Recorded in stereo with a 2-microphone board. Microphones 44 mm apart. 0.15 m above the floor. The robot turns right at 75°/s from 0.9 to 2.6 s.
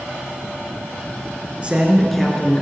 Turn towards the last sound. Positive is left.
turn(degrees=40)